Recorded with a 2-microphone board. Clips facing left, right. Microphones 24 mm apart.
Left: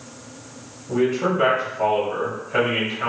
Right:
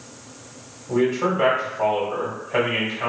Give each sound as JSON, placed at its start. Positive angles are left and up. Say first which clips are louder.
{"t": 0.9, "sound": "a man speaking", "louder": "even", "side_deg": -20, "distance_m": 1.7}